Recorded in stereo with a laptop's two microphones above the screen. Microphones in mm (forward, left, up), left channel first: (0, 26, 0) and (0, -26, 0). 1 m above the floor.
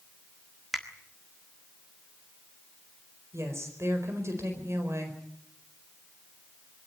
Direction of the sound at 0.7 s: 5° right (ahead or behind).